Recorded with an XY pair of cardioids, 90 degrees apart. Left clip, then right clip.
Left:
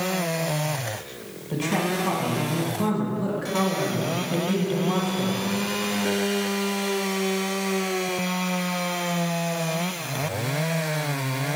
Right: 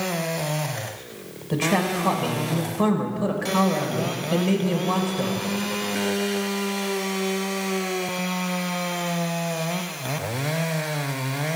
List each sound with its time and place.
1.5 s a man speaking: 45° right, 1.6 m